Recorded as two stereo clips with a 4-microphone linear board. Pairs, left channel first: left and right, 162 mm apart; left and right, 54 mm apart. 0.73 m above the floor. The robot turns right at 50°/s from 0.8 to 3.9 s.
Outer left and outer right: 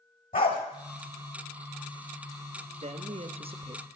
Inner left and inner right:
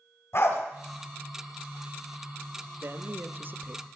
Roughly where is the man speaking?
Right.